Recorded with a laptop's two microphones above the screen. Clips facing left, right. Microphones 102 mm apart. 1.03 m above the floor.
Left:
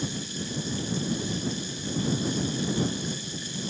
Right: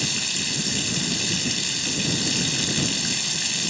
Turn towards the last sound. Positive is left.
turn(degrees=-85)